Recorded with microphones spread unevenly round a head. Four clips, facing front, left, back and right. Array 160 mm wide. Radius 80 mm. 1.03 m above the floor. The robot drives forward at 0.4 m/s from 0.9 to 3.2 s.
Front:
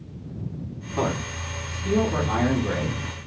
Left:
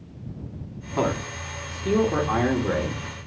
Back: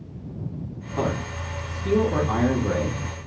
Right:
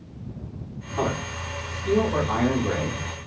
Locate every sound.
1.0 s a man speaking: 80° left, 1.1 m; by 3.0 s 130° left, 1.3 m